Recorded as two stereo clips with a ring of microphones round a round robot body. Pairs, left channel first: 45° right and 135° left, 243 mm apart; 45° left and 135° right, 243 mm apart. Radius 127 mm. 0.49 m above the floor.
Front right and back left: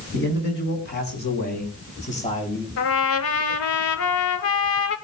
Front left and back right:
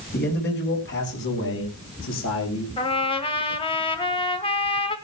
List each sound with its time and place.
0.1 s a man speaking: 5° right, 4.5 m; by 2.7 s 20° left, 3 m
2.8 s a trumpet: 25° right, 1.6 m